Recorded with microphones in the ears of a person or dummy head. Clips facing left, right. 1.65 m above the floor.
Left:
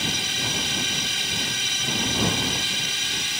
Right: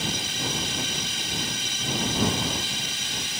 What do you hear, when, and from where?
0.0 s a drone: 60° left (ahead or behind)